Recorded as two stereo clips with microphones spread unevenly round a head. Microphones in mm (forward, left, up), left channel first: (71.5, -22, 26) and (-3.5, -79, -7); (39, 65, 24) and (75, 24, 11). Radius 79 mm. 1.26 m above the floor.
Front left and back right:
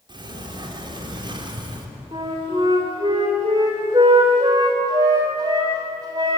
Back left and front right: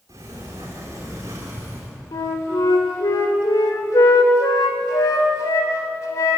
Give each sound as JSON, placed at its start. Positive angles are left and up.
{"t": 0.1, "sound": "a sliding door", "azimuth_deg": -105, "distance_m": 3.5}
{"t": 2.1, "sound": "a flute", "azimuth_deg": 145, "distance_m": 3.0}